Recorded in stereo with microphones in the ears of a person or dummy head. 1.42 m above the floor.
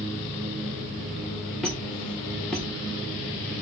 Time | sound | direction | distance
1.6 | a squeak | centre (ahead or behind) | 0.6 m